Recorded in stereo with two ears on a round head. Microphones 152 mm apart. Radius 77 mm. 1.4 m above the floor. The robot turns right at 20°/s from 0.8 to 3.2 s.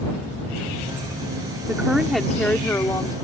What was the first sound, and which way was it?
A woman speaking, 10° right (ahead or behind).